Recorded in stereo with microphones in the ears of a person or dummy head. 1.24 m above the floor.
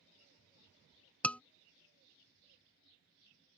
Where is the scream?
5° left (ahead or behind).